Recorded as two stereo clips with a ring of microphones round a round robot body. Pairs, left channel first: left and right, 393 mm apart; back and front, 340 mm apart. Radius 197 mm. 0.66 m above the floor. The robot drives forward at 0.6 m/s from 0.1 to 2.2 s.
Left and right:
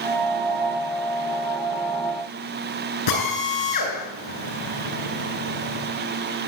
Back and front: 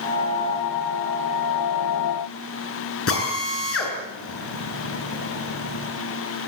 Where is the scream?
No scream in this recording.